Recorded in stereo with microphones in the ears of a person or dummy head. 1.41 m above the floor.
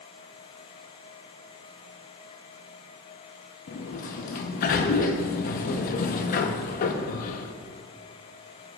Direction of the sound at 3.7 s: 50° left (ahead or behind).